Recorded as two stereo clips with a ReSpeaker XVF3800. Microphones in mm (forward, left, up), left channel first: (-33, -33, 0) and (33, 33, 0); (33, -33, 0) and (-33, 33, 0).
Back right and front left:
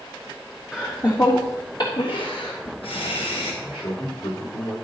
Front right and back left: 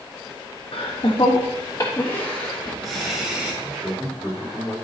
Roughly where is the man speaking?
Behind right.